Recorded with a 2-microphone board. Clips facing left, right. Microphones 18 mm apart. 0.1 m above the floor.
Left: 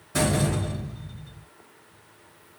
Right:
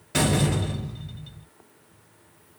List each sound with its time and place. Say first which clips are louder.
0.1 s a door slam: right 1 dB; 50° right (ahead or behind), 1.9 m